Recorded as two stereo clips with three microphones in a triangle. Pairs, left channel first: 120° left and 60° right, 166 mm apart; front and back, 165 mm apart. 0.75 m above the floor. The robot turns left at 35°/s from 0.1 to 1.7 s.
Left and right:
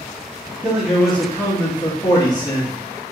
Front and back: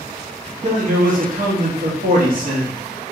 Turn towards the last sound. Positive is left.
turn(degrees=180)